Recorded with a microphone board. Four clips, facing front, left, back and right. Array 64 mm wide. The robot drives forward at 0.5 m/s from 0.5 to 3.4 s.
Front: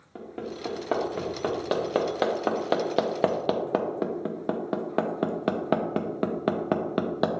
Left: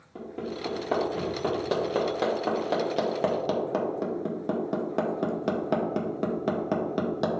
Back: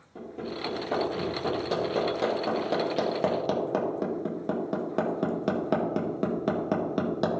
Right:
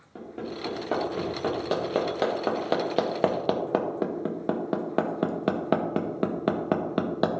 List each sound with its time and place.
0.1 s hammering: 10° right, 1.9 m; by 7.3 s 40° right, 0.7 m